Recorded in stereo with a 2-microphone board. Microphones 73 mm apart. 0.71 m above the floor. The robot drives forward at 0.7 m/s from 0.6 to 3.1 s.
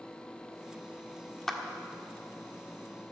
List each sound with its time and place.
1.5 s a clap: 5° left (ahead or behind), 1.5 m